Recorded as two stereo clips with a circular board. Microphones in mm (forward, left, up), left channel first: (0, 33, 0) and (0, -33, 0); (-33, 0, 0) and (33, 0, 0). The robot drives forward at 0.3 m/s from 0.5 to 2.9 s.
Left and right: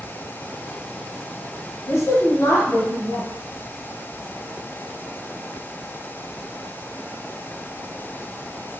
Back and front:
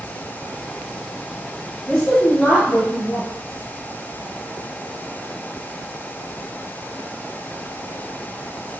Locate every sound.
1.9 s a woman speaking: 110° left, 1.0 m; by 3.3 s 125° left, 1.1 m